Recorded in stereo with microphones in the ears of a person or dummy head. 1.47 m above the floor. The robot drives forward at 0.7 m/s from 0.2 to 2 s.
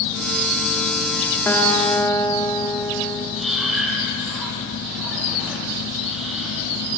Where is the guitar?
15° left (ahead or behind), 1.8 m; by 3.3 s 10° left (ahead or behind), 2 m.